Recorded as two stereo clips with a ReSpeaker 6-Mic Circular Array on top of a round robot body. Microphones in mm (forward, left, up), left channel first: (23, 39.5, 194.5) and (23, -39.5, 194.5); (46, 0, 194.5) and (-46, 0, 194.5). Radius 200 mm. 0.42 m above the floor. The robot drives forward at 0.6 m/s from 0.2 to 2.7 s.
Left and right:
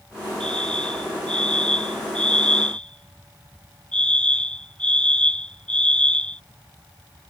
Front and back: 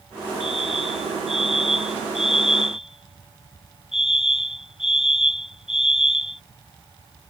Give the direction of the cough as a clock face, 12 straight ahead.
No cough in this recording.